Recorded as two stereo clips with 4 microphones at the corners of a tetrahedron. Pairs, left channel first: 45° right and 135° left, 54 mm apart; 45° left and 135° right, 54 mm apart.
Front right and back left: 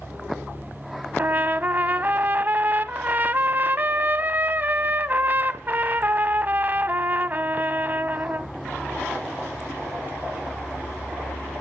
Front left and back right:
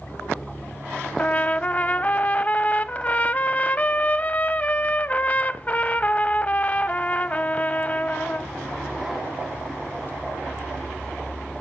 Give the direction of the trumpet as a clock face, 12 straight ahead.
9 o'clock.